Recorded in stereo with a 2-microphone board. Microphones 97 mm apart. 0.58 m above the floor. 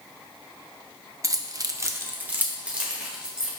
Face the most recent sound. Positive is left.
turn(degrees=-10)  # may be behind; listen again after turning